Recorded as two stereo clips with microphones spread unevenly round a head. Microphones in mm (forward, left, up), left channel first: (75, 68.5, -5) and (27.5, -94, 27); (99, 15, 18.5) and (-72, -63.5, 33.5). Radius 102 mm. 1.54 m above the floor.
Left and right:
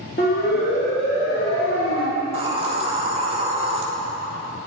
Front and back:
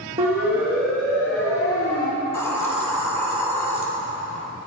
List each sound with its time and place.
0.2 s a siren: 125° left, 2.5 m; by 2.1 s 95° left, 3 m
2.2 s a hiss: 55° right, 3.5 m